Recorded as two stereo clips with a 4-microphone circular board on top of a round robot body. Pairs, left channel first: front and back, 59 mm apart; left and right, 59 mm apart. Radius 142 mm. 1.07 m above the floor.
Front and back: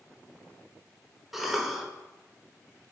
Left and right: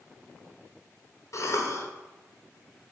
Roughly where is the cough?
Left.